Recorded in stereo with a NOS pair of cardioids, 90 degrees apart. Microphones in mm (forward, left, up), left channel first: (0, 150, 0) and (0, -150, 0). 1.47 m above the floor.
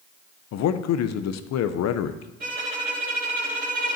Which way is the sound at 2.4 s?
30° right.